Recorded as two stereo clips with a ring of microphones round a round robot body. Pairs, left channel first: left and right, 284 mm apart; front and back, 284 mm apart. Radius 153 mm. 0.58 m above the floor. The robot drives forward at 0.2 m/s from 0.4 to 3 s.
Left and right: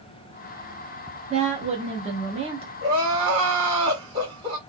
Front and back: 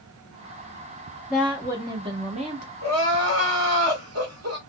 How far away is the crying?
About 2 m.